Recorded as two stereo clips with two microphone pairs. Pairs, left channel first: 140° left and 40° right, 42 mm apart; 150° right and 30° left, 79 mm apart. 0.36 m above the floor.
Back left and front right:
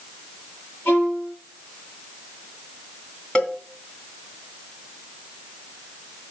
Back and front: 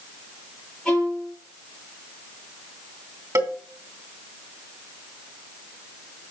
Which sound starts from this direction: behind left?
A violin, at 0.8 s.